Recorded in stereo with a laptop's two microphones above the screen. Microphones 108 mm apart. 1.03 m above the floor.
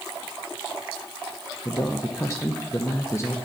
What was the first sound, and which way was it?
A man speaking, 25° left (ahead or behind).